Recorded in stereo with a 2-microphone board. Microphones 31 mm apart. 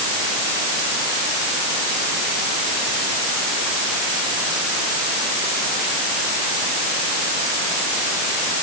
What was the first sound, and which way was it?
Only background noise.